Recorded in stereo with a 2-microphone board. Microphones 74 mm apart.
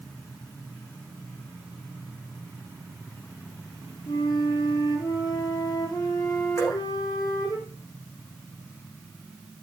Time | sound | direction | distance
4.1 | a flute | 55° left (ahead or behind) | 5 m
6.6 | dripping | 35° left (ahead or behind) | 9.5 m